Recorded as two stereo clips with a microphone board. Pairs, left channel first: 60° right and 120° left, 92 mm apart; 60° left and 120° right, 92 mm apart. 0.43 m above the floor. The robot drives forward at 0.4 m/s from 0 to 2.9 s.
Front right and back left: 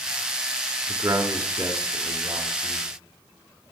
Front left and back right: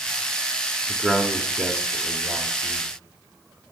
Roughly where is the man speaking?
Behind.